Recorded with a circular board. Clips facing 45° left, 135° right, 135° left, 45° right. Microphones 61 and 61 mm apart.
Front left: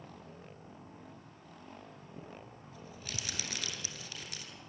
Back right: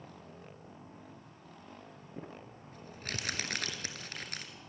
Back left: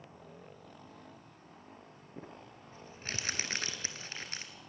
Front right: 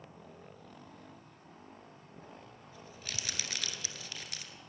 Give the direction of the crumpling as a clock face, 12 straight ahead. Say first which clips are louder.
Back right 3 dB, back left 4 dB; 6 o'clock.